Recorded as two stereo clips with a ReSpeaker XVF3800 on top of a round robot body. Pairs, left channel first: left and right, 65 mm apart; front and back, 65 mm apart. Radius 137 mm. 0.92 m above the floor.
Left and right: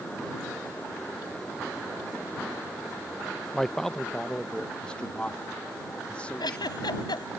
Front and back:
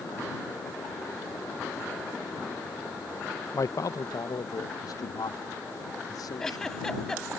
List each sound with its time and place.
3.5 s a man speaking: 5° left; by 7.0 s 20° left
6.4 s a giggle: 85° left